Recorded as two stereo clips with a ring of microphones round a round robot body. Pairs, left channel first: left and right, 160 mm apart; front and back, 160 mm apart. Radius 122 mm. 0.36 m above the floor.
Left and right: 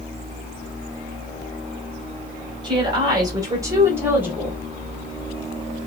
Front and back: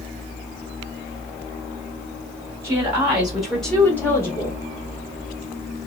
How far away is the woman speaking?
About 1.6 m.